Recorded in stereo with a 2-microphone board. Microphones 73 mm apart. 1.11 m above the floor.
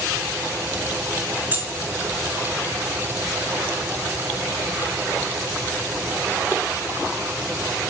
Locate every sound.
1.5 s keys jangling: 25° right (ahead or behind), 1.0 m